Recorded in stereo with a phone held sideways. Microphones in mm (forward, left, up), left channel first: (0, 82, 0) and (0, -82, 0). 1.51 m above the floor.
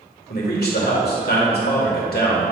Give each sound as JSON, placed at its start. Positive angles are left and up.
{"t": 0.3, "sound": "a man speaking", "side_deg": 75, "distance_m": 1.8}